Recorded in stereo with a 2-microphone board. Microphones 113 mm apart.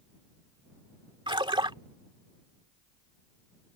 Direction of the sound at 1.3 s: 50° right (ahead or behind).